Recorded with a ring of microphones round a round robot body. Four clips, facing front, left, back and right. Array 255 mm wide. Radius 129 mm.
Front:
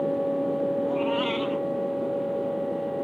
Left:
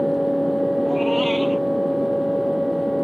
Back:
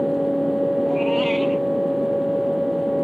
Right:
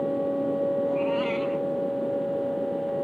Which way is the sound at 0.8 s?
125° left.